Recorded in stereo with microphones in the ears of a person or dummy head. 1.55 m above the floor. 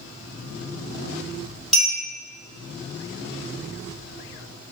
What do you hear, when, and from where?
1.7 s a clink: centre (ahead or behind), 1.7 m